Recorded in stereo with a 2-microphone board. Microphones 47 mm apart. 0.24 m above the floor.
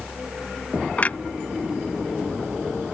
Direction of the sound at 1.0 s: 35° left (ahead or behind).